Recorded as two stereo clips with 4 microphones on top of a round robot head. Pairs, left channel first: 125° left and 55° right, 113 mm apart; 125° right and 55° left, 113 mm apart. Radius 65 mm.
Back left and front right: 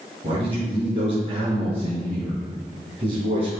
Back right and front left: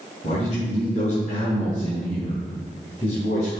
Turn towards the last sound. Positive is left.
turn(degrees=-100)